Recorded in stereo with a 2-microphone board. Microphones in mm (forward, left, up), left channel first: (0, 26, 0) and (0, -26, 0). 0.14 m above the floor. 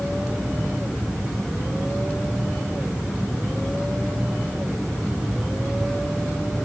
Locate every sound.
Only background noise.